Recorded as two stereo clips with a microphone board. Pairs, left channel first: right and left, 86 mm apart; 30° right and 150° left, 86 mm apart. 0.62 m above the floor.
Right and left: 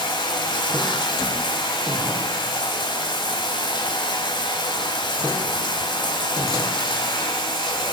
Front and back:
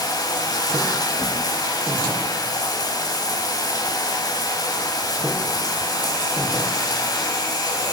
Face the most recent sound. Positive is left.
turn(degrees=-65)